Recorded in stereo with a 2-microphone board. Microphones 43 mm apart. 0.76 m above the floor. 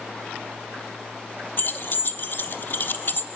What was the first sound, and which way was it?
Keys jangling, 50° left (ahead or behind).